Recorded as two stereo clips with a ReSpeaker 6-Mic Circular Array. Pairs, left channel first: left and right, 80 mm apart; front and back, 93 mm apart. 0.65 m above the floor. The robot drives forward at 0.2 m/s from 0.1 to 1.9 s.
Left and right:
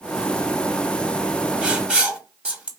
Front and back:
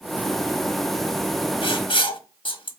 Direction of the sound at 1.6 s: 10° right.